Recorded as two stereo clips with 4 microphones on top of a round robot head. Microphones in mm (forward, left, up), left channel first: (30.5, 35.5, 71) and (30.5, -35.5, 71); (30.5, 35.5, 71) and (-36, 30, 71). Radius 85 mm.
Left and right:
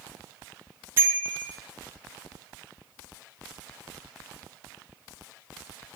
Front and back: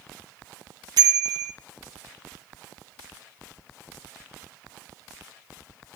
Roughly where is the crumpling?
I don't hear crumpling.